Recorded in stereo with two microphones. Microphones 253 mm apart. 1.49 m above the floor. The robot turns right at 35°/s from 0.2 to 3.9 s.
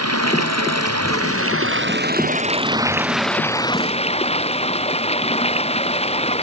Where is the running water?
105° right; by 6.4 s 25° left.